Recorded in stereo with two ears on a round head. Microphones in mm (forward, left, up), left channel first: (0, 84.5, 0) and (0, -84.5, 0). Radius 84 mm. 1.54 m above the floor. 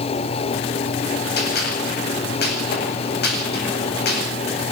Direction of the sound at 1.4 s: 60° left (ahead or behind).